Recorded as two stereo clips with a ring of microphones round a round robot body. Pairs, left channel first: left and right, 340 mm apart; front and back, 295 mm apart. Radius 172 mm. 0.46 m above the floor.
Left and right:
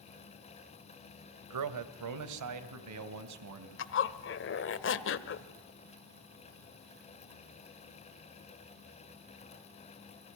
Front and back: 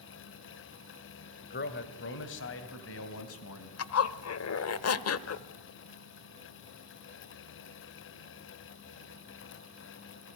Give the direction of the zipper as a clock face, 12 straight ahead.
11 o'clock.